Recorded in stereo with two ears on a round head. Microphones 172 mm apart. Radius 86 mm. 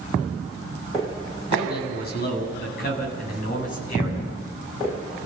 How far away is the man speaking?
About 8 m.